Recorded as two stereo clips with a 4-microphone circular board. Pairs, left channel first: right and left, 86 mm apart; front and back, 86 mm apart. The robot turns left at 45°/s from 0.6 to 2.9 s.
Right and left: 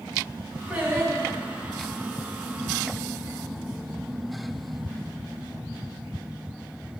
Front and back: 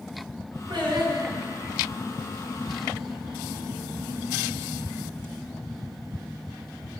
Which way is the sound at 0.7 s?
165° left.